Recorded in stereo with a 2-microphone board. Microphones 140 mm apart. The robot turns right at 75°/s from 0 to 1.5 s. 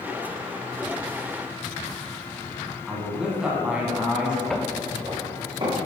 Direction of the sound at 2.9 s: 5° right (ahead or behind).